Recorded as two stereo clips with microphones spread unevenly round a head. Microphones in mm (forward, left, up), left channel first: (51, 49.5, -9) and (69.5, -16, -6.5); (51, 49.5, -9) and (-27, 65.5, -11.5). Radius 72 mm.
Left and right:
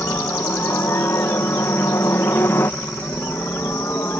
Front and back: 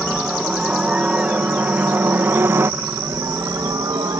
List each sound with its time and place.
0.0 s a helicopter: 85° left; by 4.2 s 160° left